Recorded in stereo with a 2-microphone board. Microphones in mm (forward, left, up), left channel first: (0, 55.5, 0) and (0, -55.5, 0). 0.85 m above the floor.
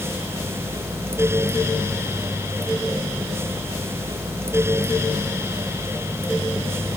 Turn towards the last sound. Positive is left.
No sound to turn to.